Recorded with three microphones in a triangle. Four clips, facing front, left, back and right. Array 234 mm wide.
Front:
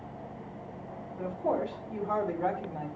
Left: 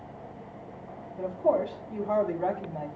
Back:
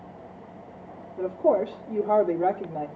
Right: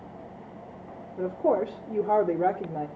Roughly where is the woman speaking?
Behind right.